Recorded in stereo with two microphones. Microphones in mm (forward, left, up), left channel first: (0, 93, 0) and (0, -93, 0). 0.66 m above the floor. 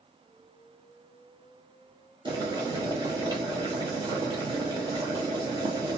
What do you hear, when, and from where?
2.2 s boiling: 25° right (ahead or behind), 0.9 m